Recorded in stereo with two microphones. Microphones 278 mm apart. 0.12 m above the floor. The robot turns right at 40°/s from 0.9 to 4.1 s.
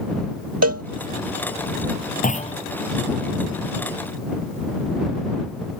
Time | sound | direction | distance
0.6 | a cowbell | 65° right (ahead or behind) | ?
2.2 | a clunk | 30° left (ahead or behind) | ?